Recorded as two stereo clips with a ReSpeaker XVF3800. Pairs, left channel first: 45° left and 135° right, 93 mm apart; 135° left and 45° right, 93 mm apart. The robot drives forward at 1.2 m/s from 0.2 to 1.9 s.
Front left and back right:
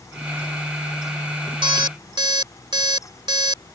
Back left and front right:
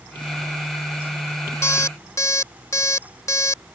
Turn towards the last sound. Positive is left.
turn(degrees=-170)